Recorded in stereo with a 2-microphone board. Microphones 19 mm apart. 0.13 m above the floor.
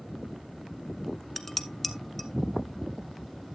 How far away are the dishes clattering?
About 0.8 m.